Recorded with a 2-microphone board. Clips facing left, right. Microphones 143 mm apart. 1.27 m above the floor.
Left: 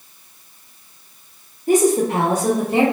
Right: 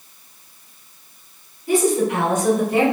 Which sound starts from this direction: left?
A woman speaking, at 1.7 s.